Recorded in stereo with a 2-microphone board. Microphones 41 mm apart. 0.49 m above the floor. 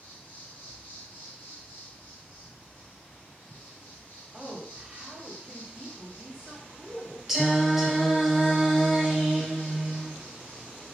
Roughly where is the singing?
Centre.